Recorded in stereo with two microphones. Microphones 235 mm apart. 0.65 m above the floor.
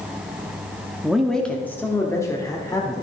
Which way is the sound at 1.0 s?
5° right (ahead or behind).